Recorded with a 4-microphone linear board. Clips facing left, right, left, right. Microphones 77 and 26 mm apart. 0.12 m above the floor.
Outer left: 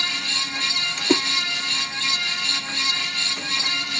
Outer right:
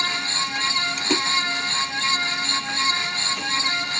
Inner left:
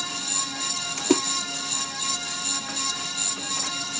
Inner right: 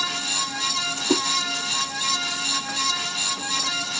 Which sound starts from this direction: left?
A splash, at 1.0 s.